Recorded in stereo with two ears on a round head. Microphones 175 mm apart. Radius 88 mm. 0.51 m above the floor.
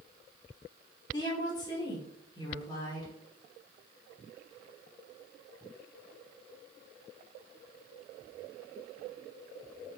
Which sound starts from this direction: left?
A woman speaking, at 1.1 s.